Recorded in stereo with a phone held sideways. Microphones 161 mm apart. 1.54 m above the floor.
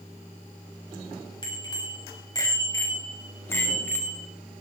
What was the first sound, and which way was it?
A bicycle bell, 30° left (ahead or behind).